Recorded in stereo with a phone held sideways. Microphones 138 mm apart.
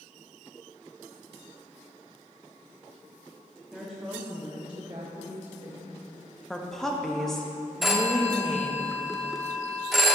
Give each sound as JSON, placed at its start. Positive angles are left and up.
{"t": 3.7, "sound": "a woman speaking", "side_deg": 0, "distance_m": 1.3}
{"t": 6.5, "sound": "a woman speaking", "side_deg": 5, "distance_m": 1.0}
{"t": 7.8, "sound": "a phone ringing", "side_deg": 0, "distance_m": 0.9}